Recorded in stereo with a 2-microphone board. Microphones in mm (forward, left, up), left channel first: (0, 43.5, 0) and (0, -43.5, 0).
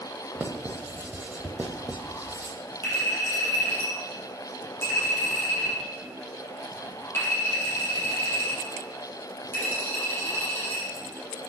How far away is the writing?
About 0.9 m.